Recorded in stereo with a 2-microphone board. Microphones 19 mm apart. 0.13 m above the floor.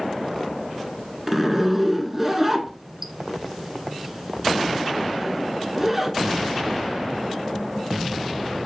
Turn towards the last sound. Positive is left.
turn(degrees=-10)  # may be behind; listen again after turning